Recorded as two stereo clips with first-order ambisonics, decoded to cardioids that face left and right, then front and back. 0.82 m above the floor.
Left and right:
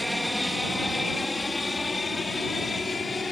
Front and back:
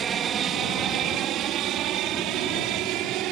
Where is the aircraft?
175° left; by 3.3 s 160° left.